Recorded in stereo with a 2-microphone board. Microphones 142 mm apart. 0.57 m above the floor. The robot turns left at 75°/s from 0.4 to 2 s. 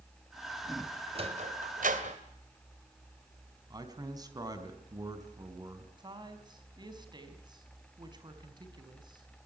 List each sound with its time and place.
1.1 s a sliding door: 40° right (ahead or behind), 2.5 m; by 2.2 s 65° right (ahead or behind), 2.5 m
3.7 s a man speaking: 25° right (ahead or behind), 4 m
6.0 s a woman speaking: 30° right (ahead or behind), 4 m